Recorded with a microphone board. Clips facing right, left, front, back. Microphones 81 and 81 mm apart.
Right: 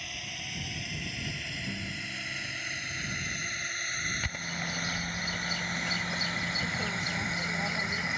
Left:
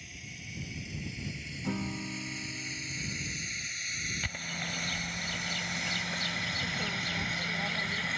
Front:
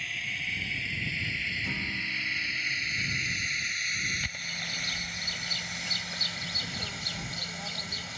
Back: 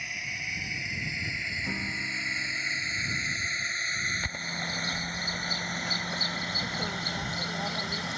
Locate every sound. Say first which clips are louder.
0.0 s a drone: right 6 dB, even; 105° right; by 8.2 s 165° right
1.6 s a guitar: left 8 dB, back 1 dB; 105° left
4.2 s a bird: right 2 dB, back 3 dB; 165° right